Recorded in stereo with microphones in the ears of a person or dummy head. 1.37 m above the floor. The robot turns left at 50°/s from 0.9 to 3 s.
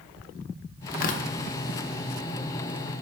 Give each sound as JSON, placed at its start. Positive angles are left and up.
{"t": 0.9, "sound": "tearing paper", "side_deg": 50, "distance_m": 1.0}